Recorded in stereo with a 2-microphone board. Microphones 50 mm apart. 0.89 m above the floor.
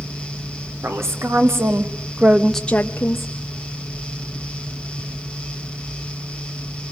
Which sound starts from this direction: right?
A woman speaking, at 0.8 s.